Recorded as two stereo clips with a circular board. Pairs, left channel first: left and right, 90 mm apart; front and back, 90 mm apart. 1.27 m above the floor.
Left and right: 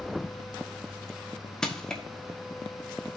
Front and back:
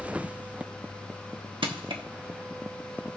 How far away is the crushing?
About 1.3 m.